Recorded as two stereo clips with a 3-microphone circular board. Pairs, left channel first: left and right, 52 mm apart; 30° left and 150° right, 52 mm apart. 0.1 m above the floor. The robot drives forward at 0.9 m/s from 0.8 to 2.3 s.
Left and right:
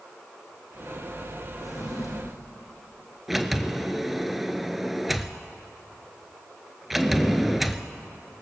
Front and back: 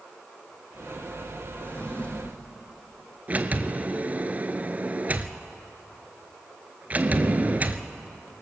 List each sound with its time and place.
1.6 s a drawer: 85° left, 4 m; by 2.4 s 95° left, 4 m
3.3 s a sliding door: 175° right, 0.8 m